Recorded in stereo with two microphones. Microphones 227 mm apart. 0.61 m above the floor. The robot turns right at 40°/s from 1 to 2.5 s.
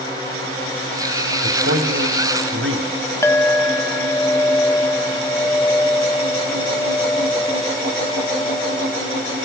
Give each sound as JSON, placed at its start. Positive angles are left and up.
{"t": 1.4, "sound": "a man speaking", "azimuth_deg": -110, "distance_m": 3.0}
{"t": 3.2, "sound": "a clink", "side_deg": 10, "distance_m": 0.6}